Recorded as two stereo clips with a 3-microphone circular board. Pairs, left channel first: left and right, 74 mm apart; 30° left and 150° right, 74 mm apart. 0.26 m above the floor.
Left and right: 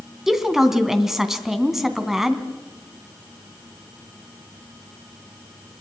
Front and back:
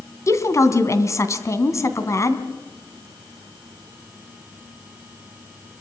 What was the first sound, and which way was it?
A woman speaking, 5° right.